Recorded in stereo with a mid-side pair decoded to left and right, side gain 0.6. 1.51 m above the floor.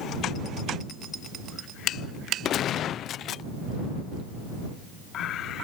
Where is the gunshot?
50° left.